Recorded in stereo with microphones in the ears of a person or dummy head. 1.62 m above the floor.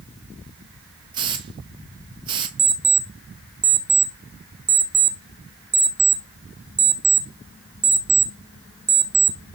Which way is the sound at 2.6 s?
15° right (ahead or behind).